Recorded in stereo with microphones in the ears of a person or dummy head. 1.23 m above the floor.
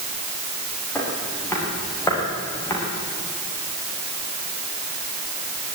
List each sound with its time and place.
0.9 s footsteps: 15° left (ahead or behind), 7.5 m